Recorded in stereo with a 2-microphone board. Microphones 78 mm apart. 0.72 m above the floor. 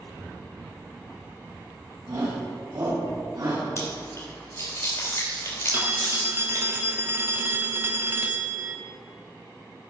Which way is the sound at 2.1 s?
60° right (ahead or behind).